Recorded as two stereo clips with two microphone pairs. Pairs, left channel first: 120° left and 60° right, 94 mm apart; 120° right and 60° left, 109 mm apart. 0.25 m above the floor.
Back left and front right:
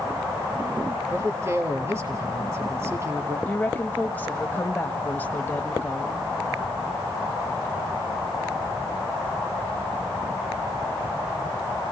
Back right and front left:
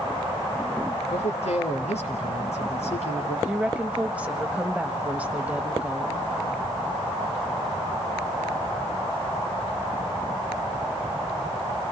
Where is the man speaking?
120° right, 4.5 m.